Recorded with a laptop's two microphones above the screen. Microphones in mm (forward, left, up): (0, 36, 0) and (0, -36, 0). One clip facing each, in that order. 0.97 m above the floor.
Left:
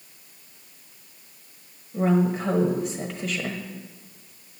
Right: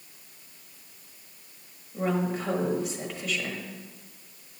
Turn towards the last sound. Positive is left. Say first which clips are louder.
# left 6 dB
turn(degrees=35)  # may be behind; listen again after turning